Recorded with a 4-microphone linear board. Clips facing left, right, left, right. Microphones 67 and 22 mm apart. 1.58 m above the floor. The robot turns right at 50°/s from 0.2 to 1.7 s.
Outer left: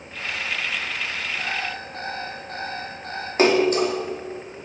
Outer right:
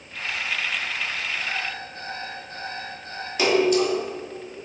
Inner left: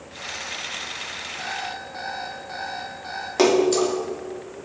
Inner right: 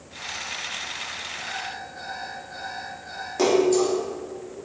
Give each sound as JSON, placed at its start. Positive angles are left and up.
{"t": 1.4, "sound": "an alarm clock", "side_deg": 75, "distance_m": 5.0}
{"t": 3.4, "sound": "a splash", "side_deg": 40, "distance_m": 2.5}